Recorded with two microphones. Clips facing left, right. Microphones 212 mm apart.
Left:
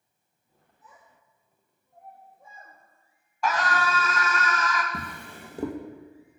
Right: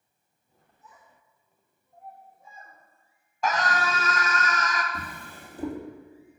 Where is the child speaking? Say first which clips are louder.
Even; 60° left (ahead or behind), 3 m.